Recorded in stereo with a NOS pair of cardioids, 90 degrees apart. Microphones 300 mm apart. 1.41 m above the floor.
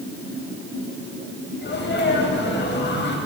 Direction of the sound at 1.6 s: 35° left.